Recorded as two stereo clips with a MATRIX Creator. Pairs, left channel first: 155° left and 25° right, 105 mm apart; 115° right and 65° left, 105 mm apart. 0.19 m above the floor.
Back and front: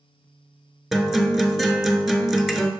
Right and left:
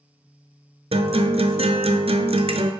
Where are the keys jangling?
I don't hear keys jangling.